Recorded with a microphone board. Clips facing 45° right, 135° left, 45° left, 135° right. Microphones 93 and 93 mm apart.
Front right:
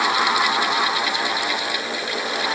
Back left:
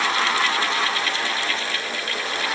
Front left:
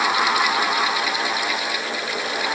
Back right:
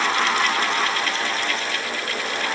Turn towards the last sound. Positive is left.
No sound to turn to.